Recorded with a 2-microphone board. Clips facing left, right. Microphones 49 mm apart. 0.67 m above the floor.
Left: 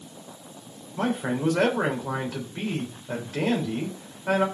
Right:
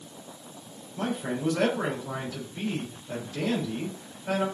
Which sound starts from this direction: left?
A man speaking, at 1.0 s.